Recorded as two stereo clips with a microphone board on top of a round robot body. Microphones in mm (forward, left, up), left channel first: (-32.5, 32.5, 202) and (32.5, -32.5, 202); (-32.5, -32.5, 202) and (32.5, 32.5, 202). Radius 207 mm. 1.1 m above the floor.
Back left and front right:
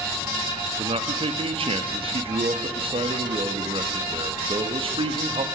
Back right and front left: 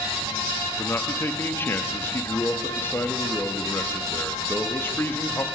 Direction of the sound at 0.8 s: 70° right.